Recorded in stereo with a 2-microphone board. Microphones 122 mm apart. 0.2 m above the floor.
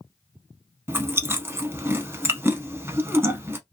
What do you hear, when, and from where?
0.9 s chewing: 20° right (ahead or behind), 0.7 m